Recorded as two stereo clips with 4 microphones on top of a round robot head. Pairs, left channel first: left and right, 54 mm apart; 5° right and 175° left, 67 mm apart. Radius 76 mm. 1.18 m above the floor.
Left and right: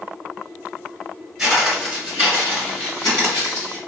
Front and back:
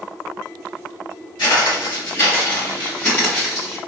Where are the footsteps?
5° right, 1.6 m; by 3.8 s 85° left, 2 m.